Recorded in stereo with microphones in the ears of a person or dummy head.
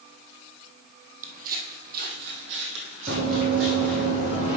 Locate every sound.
1.2 s footsteps: 50° right (ahead or behind), 2.5 m; by 4.1 s 70° right (ahead or behind), 3.5 m
3.1 s running footsteps: 50° right (ahead or behind), 4.5 m; by 4.6 s 40° right (ahead or behind), 3.5 m